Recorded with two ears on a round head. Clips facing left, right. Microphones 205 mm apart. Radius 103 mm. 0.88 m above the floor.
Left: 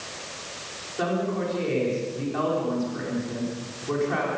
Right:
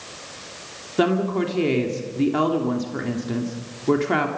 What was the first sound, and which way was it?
A woman speaking, 70° right (ahead or behind).